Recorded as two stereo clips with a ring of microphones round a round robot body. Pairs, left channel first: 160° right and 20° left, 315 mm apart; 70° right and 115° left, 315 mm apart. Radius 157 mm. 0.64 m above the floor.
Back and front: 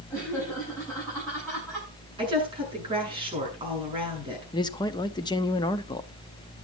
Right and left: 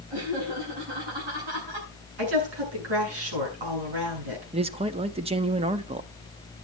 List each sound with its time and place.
0.1 s laughter: 110° left, 7.5 m
2.2 s a woman speaking: 95° left, 8.5 m
4.5 s a man speaking: 150° left, 0.7 m